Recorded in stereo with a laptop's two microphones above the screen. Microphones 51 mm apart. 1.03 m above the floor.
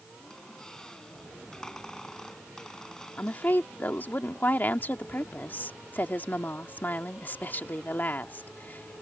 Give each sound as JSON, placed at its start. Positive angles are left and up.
{"t": 0.2, "sound": "a squeak", "side_deg": 10}
{"t": 3.2, "sound": "a woman speaking", "side_deg": 40}